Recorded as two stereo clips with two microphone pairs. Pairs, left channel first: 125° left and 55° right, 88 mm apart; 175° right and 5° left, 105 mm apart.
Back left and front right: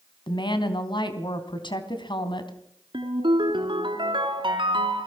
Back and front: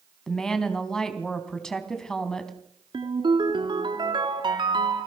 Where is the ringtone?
30° right, 4 m.